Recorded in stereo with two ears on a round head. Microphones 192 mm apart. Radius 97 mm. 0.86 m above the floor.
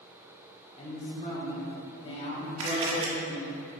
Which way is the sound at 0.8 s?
25° left (ahead or behind).